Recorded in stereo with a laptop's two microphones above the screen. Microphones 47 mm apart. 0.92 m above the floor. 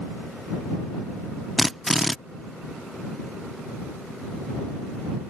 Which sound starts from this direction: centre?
A drill, at 1.6 s.